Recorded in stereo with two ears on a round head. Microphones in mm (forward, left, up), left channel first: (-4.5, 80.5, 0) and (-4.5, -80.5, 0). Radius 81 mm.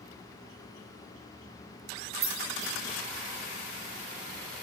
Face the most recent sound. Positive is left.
turn(degrees=-55)  # may be behind; listen again after turning